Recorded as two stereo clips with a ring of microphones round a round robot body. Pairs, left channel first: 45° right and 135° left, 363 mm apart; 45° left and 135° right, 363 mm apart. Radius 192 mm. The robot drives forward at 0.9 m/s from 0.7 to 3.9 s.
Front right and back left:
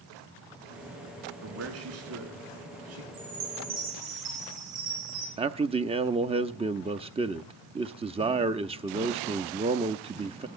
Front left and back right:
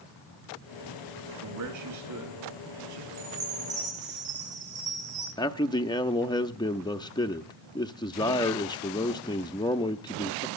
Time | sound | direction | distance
1.4 | a man speaking | 175° right | 5.5 m
3.1 | a chime | 155° left | 9 m
5.4 | a man speaking | 100° left | 0.7 m